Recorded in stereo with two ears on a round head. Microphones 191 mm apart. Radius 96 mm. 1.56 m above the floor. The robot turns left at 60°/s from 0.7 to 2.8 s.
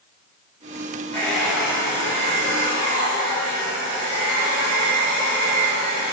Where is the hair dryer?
15° left, 1.8 m; by 6.1 s 85° right, 1.8 m.